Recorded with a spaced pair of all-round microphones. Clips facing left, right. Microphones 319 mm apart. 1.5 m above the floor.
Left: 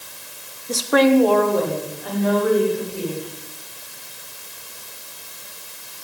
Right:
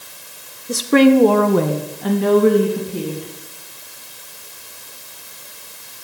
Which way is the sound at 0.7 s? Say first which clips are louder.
Right 4 dB; 15° right (ahead or behind).